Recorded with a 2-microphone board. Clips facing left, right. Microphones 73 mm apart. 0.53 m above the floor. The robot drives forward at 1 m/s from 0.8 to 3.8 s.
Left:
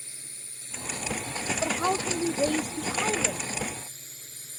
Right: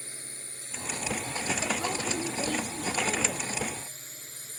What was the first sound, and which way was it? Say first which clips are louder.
A drone: right 5 dB; 45° right (ahead or behind).